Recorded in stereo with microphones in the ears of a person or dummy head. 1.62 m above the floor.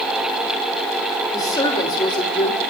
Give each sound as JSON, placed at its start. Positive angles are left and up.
{"t": 1.3, "sound": "a woman speaking", "side_deg": 20, "distance_m": 2.5}